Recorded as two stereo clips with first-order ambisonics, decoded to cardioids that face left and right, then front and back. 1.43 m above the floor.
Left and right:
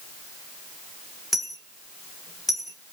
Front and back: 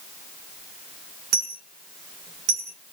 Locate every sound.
1.3 s a dropped coin: 170° left, 0.9 m